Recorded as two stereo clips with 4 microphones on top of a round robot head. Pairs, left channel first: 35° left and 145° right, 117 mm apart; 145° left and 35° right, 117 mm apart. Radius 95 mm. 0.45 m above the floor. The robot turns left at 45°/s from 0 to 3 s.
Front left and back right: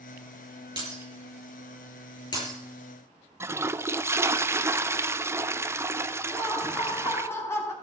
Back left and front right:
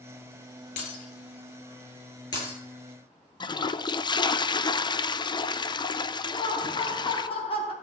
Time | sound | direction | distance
0.8 | breaking glass | 160° left | 9 m
3.4 | a toilet flushing | 160° left | 0.8 m
6.3 | laughter | 105° left | 3.5 m